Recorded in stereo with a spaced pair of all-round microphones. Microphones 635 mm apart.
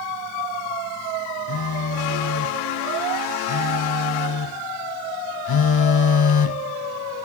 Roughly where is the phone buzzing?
Left.